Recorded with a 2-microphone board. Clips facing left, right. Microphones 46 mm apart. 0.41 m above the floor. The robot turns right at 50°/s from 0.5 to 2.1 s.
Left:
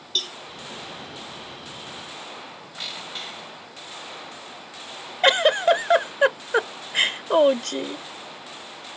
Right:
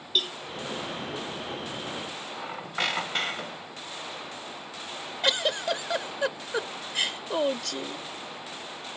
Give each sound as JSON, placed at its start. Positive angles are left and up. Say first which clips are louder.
{"t": 0.1, "sound": "a cowbell", "louder": "right 1 dB", "side_deg": -15}
{"t": 2.4, "sound": "a squeak", "louder": "right 6 dB", "side_deg": -60}
{"t": 5.2, "sound": "a giggle", "louder": "left 10 dB", "side_deg": 50}